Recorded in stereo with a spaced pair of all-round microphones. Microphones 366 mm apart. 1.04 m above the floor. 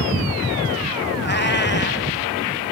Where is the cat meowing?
30° left (ahead or behind), 1.2 m.